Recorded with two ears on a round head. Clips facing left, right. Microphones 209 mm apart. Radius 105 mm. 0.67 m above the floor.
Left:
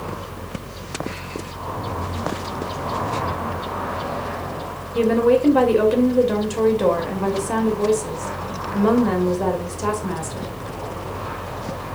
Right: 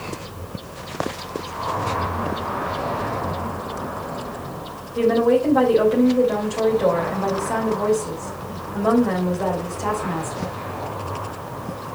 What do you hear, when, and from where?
5.0 s a woman speaking: 40° left (ahead or behind), 2.5 m